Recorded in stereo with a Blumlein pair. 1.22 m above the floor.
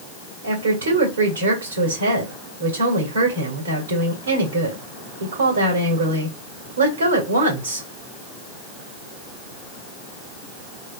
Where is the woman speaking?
65° right, 2 m.